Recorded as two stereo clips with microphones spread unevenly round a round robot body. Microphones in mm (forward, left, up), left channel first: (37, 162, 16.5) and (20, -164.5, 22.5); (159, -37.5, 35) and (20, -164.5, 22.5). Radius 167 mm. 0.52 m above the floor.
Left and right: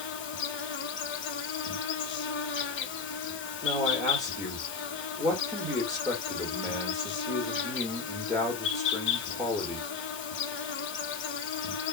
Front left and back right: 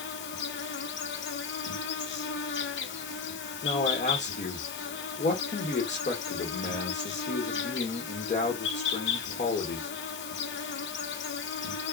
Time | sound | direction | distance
0.0 | an insect | 30° left | 0.8 m
3.6 | a man speaking | straight ahead | 1.2 m